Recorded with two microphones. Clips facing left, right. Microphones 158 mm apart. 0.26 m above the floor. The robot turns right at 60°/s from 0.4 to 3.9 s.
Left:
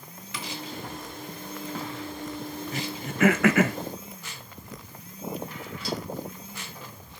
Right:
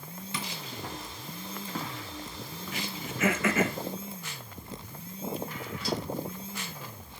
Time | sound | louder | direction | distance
0.3 | tapping | even | 25° right (ahead or behind) | 3.5 m
2.7 | throat clearing | left 1 dB | 40° left (ahead or behind) | 0.9 m